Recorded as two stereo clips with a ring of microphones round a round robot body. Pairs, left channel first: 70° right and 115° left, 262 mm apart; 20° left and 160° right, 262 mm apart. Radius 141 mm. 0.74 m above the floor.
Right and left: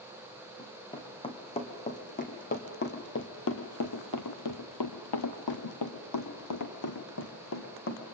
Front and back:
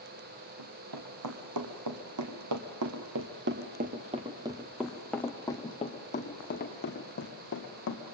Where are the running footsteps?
145° right, 3 m; by 8.1 s 20° right, 3 m.